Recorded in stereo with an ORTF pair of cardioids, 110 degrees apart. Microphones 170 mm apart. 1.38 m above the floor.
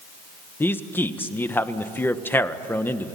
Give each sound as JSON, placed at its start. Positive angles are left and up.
{"t": 0.6, "sound": "a man speaking", "azimuth_deg": 15, "distance_m": 1.4}